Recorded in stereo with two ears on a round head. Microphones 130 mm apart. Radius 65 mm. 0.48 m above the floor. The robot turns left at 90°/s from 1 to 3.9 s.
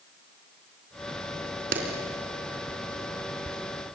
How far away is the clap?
About 3.5 m.